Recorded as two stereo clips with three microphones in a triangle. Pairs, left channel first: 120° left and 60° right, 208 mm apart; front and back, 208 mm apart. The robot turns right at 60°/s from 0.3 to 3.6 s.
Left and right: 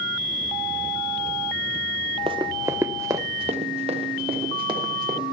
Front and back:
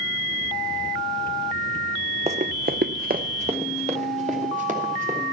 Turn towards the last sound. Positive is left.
turn(degrees=-130)